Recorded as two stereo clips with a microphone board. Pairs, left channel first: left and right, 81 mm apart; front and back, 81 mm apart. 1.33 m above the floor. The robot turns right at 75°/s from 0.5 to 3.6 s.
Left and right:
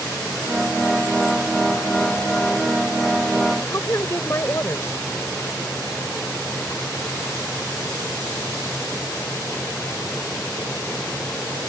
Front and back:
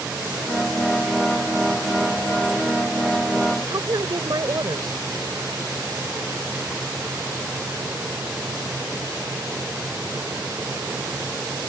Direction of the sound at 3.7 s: 145° left.